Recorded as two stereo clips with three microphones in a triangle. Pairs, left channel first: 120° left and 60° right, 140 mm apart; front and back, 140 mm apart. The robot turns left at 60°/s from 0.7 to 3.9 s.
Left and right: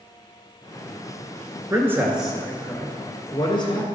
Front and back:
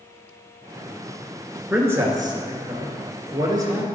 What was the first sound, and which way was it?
A man speaking, 110° right.